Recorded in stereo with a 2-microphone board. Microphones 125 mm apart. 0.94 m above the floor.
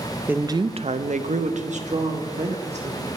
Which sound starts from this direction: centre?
A woman speaking, at 0.3 s.